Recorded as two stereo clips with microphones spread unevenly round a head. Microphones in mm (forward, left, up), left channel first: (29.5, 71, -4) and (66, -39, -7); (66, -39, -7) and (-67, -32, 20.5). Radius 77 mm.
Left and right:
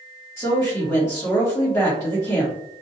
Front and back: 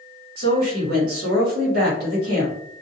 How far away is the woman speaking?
About 1.2 m.